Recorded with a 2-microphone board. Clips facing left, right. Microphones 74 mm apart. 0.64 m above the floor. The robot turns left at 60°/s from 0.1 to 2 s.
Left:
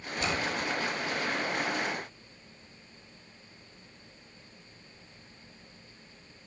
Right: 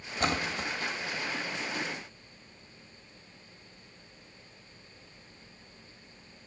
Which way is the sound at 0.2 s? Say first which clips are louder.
Right 1 dB; 50° right (ahead or behind).